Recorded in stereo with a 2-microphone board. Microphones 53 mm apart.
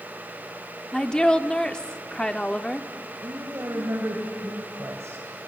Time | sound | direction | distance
0.9 | a woman speaking | 15° left (ahead or behind) | 0.9 m
3.2 | a woman speaking | 60° right (ahead or behind) | 2.5 m